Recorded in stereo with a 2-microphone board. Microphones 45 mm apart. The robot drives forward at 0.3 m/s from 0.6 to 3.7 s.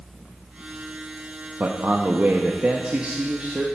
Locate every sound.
1.6 s a man speaking: 45° right (ahead or behind), 0.6 m; by 3.7 s 30° right (ahead or behind), 0.9 m